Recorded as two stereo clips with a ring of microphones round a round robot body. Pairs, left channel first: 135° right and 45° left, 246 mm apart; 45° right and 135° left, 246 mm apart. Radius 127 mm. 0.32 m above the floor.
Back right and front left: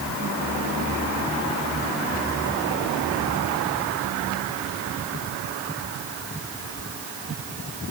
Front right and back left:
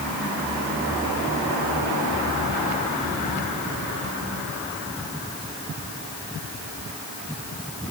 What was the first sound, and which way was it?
Only background noise.